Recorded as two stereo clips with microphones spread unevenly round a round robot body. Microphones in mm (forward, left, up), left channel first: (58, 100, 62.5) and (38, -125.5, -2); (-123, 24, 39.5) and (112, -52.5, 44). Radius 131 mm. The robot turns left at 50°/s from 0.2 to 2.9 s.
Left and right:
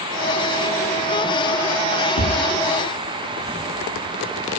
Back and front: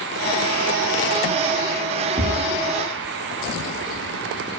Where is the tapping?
50° left, 7.5 m; by 2.4 s 40° left, 7.5 m.